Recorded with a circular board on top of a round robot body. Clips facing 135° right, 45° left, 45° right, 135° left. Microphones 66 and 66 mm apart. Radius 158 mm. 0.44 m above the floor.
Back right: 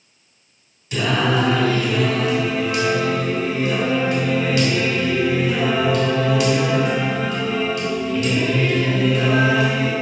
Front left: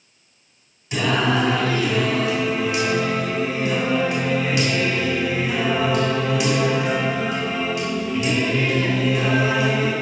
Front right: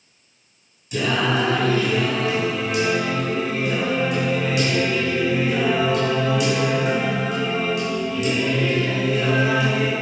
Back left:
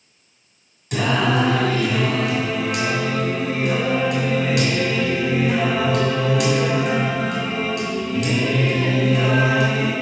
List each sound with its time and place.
0.9 s singing: 125° left, 2.5 m